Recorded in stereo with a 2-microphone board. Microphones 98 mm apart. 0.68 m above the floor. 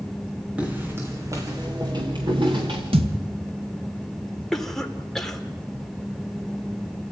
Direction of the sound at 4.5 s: 5° left (ahead or behind).